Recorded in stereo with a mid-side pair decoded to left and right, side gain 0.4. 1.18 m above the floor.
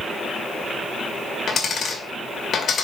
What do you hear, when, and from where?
1.5 s a dropped coin: 55° left, 2 m